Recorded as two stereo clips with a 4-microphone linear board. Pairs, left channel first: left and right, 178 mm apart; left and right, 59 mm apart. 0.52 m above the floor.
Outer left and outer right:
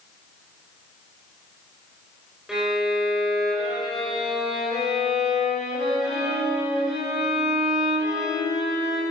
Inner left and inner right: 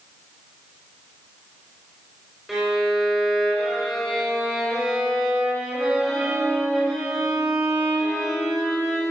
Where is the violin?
5° right (ahead or behind), 4.5 m.